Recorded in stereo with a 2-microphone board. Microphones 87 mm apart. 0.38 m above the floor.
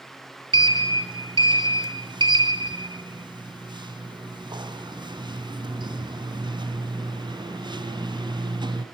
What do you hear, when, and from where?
0.5 s a sliding door: 60° right (ahead or behind), 1.7 m